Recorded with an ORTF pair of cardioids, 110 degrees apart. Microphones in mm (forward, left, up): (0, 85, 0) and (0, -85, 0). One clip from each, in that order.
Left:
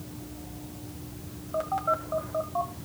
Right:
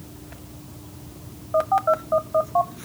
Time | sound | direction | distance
1.5 | a phone buzzing | 40° right | 1.6 m